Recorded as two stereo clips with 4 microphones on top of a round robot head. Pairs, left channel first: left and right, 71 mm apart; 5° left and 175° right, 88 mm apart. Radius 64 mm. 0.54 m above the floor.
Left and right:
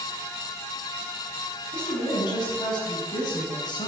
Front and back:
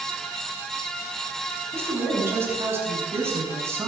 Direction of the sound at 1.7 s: 120° left.